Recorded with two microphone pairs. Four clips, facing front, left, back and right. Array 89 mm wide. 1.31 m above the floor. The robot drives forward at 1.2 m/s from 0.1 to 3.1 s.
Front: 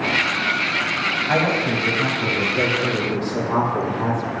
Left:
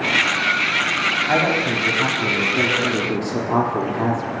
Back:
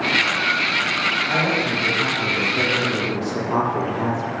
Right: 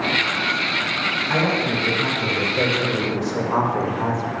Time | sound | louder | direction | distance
1.3 | a woman speaking | left 1 dB, front 4 dB | 70° left | 3.5 m